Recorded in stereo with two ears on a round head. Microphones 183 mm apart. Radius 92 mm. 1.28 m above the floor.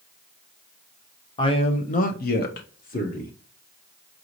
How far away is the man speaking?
About 0.8 m.